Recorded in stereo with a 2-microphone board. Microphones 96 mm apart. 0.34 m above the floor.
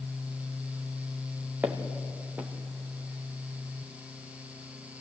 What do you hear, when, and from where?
1.6 s footsteps: 15° right (ahead or behind), 2.5 m